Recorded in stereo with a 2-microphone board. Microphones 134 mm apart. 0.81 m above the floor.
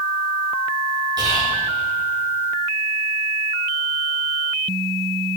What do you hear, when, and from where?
1.2 s whispering: 30° right (ahead or behind), 5 m